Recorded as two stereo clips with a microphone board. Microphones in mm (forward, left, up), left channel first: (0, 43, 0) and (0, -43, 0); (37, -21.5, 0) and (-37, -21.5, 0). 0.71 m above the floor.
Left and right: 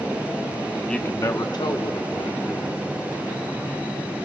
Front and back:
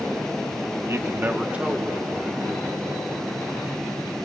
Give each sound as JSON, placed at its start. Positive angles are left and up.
{"t": 0.9, "sound": "a man speaking", "azimuth_deg": 170, "distance_m": 0.7}